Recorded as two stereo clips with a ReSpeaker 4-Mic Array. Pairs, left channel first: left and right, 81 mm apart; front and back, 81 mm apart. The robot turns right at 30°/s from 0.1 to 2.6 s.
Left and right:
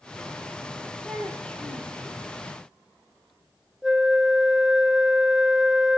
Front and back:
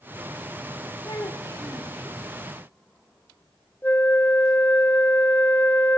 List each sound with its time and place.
1.1 s a child speaking: 5° left, 1.7 m; by 1.9 s 30° left, 1.7 m
3.8 s a flute: 20° right, 0.7 m